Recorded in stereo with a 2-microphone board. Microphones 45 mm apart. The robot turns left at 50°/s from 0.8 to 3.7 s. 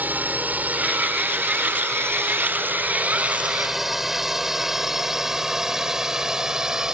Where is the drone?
40° right (ahead or behind); by 6.9 s 15° right (ahead or behind).